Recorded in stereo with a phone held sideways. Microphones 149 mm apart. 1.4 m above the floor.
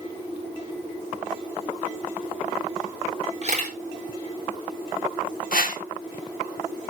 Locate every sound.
3.4 s a camera shutter: 50° right (ahead or behind), 4 m
5.5 s a whoosh: 70° left (ahead or behind), 1.3 m